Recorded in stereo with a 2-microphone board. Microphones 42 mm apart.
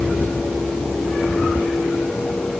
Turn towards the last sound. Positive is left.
No sound to turn to.